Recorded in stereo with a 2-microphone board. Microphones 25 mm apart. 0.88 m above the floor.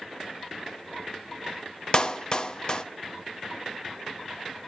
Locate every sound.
1.9 s a clap: 35° left (ahead or behind), 0.9 m